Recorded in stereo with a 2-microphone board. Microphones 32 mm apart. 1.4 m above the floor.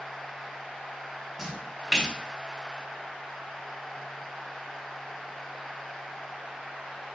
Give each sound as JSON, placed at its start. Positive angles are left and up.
{"t": 1.4, "sound": "a splash", "side_deg": 5, "distance_m": 3.5}